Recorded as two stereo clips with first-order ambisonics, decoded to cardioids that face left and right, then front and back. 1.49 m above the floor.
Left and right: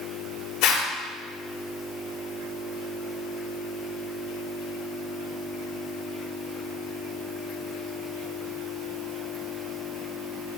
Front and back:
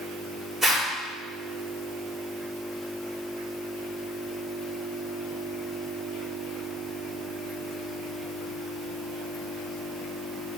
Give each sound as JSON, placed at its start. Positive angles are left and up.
{"t": 0.6, "sound": "a zipper", "azimuth_deg": 105, "distance_m": 3.0}